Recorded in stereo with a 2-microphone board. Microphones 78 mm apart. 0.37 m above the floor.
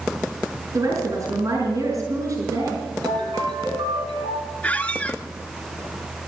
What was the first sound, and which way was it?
A woman speaking, 40° right (ahead or behind).